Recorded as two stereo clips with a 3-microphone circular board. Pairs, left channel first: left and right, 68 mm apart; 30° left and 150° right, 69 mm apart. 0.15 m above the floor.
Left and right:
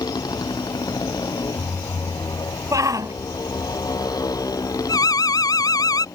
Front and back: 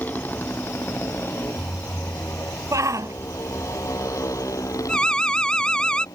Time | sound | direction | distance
0.0 | a motorcycle | 95° left | ?
2.7 | a shout | 120° right | ?
4.9 | an alarm | 105° left | ?